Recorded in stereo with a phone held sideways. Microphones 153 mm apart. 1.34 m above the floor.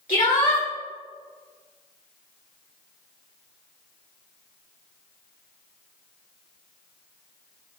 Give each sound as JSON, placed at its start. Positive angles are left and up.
{"t": 0.1, "sound": "a shout", "side_deg": 65, "distance_m": 3.5}